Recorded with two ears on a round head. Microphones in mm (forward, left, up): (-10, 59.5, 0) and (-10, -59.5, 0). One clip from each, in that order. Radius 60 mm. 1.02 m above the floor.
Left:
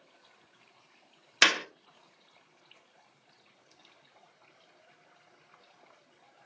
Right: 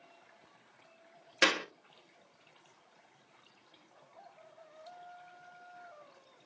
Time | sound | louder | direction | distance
1.4 | a clap | left 5 dB | 75° left (ahead or behind) | 0.8 m